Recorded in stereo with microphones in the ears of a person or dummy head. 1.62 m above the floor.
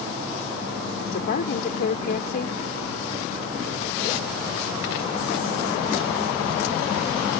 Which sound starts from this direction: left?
A woman speaking, at 1.0 s.